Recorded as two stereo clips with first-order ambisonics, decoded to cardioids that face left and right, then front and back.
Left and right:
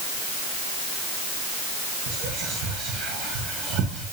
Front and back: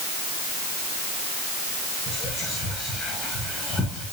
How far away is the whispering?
About 1.3 m.